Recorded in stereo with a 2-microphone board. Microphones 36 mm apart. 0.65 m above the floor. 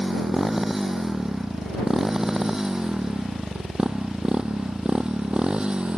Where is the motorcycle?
5° right (ahead or behind); by 6.0 s 30° right (ahead or behind).